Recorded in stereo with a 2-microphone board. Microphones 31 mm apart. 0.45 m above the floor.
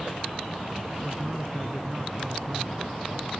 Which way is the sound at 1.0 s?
15° right (ahead or behind).